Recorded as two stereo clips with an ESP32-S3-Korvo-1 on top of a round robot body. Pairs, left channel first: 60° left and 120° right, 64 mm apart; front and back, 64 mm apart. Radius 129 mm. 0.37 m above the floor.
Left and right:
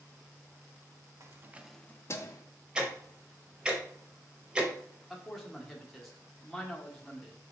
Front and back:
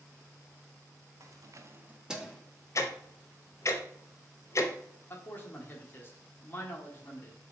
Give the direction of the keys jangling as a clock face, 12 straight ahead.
5 o'clock.